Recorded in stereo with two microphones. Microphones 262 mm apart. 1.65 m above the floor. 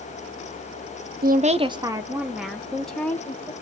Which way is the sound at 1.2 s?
35° right (ahead or behind).